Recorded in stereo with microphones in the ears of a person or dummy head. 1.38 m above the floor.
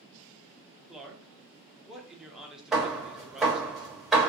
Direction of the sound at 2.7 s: 5° right (ahead or behind).